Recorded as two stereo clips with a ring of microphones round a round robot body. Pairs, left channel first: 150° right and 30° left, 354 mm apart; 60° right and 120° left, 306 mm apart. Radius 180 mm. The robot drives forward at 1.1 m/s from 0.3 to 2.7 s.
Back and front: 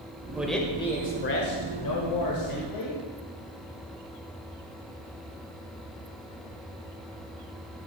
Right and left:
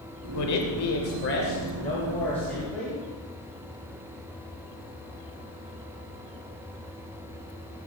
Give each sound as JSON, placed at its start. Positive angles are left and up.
{"t": 0.3, "sound": "a man speaking", "azimuth_deg": -55, "distance_m": 1.6}